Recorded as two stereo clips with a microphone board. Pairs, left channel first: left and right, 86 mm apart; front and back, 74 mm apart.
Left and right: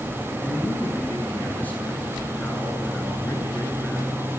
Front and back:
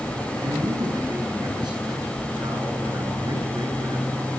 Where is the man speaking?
160° left, 9 m.